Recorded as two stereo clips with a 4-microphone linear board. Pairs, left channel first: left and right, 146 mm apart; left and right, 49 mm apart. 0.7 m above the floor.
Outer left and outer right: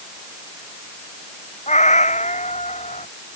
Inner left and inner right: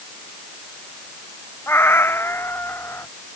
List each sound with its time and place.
1.7 s a cat meowing: 55° left (ahead or behind); by 3.1 s 50° left (ahead or behind)